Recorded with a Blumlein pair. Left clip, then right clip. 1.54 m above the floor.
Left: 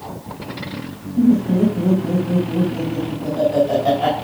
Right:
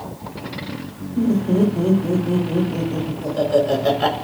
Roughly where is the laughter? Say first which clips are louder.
Left 2 dB; ahead.